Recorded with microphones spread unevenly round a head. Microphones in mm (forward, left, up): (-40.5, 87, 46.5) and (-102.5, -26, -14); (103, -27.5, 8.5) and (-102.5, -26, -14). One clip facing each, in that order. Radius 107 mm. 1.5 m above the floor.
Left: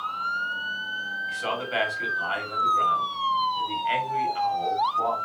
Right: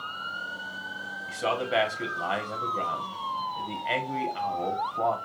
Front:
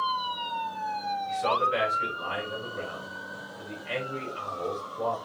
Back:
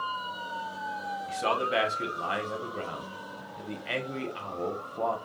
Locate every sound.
1.3 s a man speaking: 155° right, 1.4 m